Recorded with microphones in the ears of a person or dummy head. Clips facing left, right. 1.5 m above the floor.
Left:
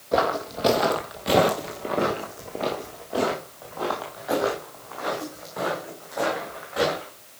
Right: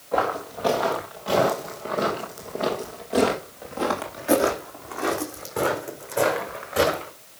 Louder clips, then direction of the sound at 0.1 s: Left 2 dB; 35° left (ahead or behind).